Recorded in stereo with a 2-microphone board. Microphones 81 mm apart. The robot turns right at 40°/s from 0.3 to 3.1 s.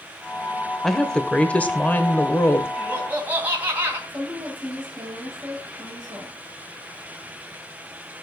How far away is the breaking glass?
No breaking glass in this recording.